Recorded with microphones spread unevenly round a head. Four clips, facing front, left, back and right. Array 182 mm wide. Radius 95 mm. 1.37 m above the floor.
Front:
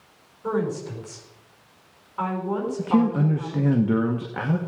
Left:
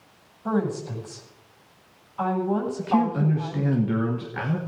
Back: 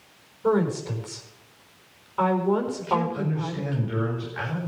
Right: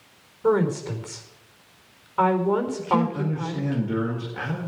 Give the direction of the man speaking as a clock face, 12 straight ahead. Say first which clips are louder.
Left 1 dB, front 5 dB; 12 o'clock.